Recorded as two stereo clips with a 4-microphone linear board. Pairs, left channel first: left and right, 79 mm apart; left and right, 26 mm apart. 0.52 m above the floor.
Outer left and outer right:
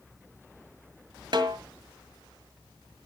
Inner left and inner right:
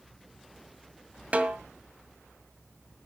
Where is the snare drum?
65° right (ahead or behind), 1.8 m.